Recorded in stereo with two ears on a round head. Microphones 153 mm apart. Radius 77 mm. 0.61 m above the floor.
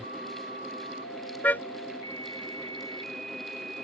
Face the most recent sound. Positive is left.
turn(degrees=10)  # may be behind; listen again after turning